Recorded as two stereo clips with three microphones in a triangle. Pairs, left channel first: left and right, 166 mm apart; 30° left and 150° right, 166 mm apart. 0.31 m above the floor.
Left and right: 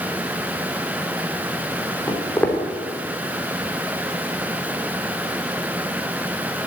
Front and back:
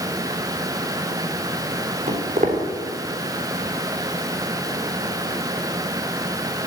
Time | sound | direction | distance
2.1 | footsteps | 170° left | 3.5 m